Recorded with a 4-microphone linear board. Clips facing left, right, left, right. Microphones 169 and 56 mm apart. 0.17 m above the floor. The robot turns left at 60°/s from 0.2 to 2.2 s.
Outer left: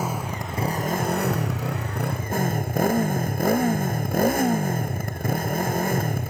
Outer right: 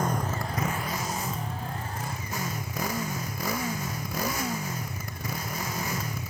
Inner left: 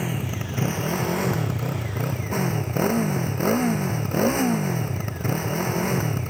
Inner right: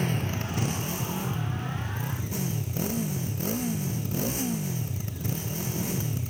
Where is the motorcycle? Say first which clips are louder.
Even, inner left 1 dB; 175° left; by 6.3 s 55° left.